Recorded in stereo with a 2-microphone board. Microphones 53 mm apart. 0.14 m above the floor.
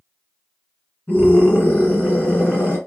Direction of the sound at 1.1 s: 30° left (ahead or behind).